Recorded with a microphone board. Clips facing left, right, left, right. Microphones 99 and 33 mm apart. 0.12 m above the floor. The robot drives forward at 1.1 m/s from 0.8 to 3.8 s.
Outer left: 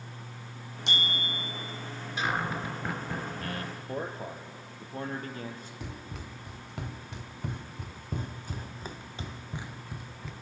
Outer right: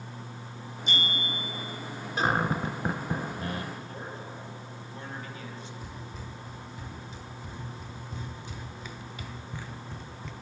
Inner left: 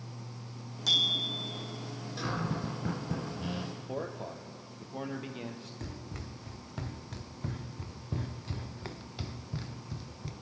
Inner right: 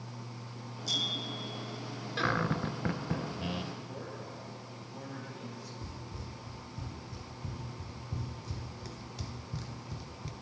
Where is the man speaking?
45° left (ahead or behind), 2.5 m.